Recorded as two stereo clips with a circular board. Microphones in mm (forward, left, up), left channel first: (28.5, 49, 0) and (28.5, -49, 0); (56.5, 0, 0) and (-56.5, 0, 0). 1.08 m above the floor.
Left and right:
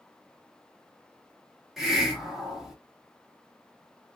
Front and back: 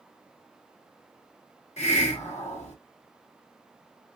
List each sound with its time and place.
1.8 s a hiss: 5° right, 1.2 m